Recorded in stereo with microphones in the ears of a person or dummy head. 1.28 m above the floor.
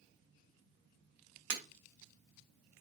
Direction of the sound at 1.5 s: 60° right (ahead or behind).